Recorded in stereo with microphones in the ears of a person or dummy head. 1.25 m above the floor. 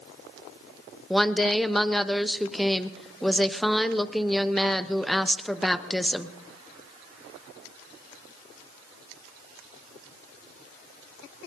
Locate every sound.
1.1 s a woman speaking: 5° left (ahead or behind), 0.7 m